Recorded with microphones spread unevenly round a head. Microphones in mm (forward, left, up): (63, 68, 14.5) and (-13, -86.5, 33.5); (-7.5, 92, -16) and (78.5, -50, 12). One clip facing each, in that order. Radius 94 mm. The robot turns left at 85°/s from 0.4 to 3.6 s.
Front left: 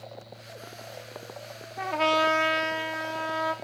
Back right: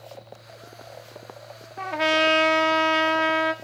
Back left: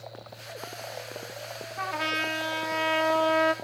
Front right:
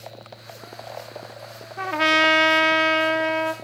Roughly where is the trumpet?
Ahead.